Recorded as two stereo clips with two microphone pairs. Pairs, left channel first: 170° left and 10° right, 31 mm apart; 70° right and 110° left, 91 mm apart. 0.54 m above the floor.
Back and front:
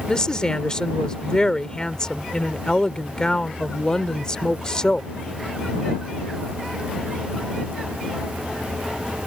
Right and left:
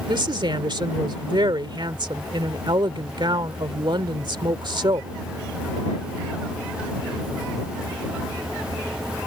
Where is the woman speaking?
110° left.